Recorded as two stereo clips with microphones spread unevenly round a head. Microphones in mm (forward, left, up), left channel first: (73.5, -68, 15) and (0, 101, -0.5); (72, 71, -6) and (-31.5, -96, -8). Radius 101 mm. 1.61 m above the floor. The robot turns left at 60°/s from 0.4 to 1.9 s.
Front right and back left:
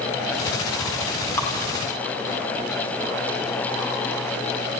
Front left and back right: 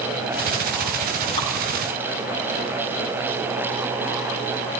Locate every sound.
1.4 s dripping: 5° left, 2 m; by 1.5 s 5° right, 2 m